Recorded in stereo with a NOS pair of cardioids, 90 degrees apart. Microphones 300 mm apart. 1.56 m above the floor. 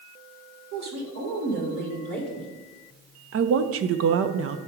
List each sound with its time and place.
0.7 s a woman speaking: 70° right, 1.6 m; by 2.5 s 30° right, 2 m
3.3 s a woman speaking: 50° right, 0.5 m